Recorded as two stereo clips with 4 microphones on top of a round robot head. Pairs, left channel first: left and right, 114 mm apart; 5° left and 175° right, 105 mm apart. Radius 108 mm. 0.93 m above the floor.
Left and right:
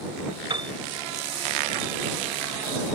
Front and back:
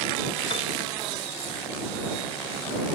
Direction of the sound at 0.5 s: 45° right.